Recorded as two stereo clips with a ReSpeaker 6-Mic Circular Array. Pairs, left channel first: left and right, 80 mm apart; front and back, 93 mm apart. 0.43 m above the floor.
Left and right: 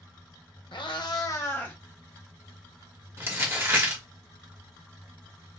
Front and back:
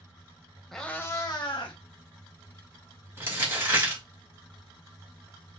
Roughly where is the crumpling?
Behind right.